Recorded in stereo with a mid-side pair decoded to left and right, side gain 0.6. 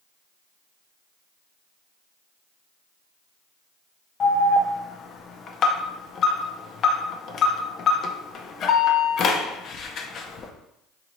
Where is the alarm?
45° left, 0.5 m.